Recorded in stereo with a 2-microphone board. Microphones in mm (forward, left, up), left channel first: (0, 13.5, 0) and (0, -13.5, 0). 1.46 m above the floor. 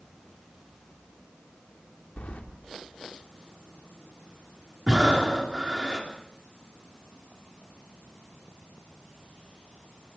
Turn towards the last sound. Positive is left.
turn(degrees=-25)  # may be behind; listen again after turning